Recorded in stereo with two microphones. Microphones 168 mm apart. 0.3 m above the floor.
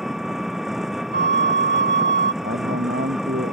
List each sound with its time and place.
0.0 s an engine running: centre (ahead or behind)
1.1 s a flute: 55° left (ahead or behind)
2.4 s a man speaking: 85° right